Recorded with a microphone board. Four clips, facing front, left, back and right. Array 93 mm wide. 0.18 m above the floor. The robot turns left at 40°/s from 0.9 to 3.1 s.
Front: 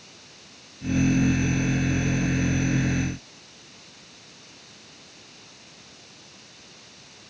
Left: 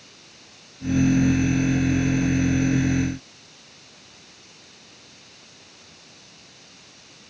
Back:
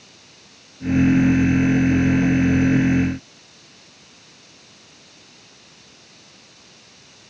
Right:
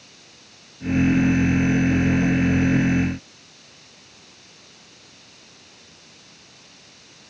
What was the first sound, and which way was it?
Only background noise.